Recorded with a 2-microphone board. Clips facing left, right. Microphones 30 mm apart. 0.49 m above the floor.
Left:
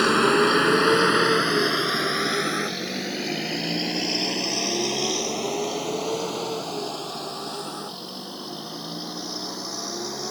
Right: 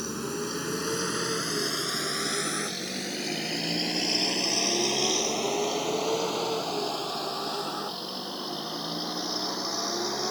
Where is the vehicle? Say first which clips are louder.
Left 15 dB; 65° left (ahead or behind); by 10.3 s 15° right (ahead or behind).